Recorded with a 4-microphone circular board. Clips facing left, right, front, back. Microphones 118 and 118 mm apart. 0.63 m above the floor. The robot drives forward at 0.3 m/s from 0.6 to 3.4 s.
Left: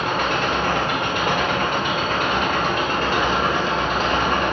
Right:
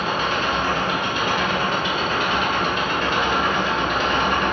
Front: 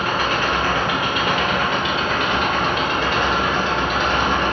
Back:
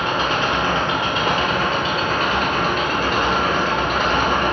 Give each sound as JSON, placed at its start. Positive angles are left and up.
{"t": 0.0, "sound": "an engine running", "azimuth_deg": 115, "distance_m": 1.2}